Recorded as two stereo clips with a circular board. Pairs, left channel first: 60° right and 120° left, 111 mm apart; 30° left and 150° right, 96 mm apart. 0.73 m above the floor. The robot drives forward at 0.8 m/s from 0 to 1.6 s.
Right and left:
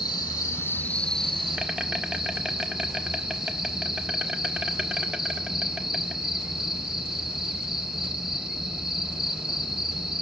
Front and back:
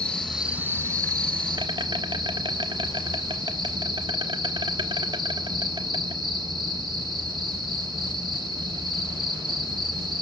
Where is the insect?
40° right, 0.8 m; by 10.2 s 155° right, 1.1 m.